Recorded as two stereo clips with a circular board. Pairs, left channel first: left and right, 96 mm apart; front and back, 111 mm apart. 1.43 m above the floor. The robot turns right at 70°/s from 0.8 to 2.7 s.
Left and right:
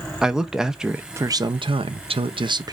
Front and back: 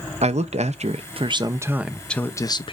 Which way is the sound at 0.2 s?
175° right.